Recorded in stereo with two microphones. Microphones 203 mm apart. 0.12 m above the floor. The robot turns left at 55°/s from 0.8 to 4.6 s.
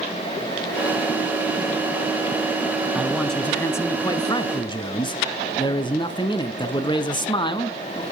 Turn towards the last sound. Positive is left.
turn(degrees=20)  # may be behind; listen again after turning